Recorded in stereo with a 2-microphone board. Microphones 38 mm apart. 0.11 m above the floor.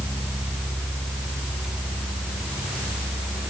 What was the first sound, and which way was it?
Only background noise.